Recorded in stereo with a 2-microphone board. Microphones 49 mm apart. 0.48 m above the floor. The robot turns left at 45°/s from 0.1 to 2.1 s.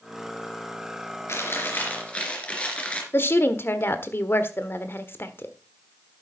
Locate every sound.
1.3 s chewing: 65° left, 3 m; by 3.0 s 25° left, 3 m
3.1 s a woman speaking: 50° left (ahead or behind), 1.3 m